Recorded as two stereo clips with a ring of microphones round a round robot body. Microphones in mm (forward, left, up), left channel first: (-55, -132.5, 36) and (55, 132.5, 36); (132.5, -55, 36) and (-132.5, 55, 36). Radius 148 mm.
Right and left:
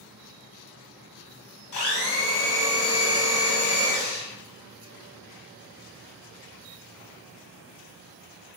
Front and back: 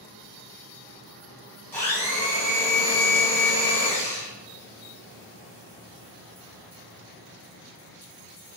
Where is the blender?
105° right, 0.8 m.